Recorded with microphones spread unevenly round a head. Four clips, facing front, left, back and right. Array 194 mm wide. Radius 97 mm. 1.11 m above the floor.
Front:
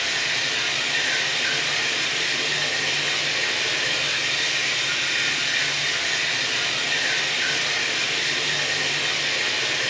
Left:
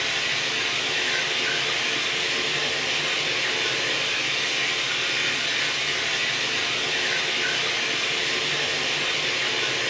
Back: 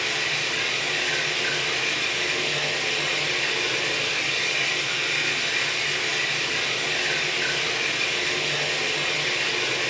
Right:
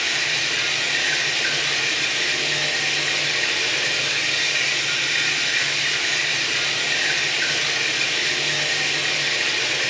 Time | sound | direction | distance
0.0 | running water | 60° right | 1.5 m